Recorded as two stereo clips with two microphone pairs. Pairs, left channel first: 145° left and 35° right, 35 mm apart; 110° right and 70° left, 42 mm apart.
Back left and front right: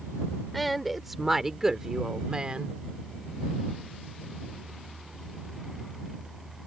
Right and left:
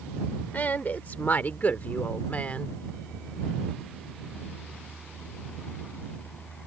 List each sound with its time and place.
0.5 s a woman speaking: 130° right; by 2.8 s 75° right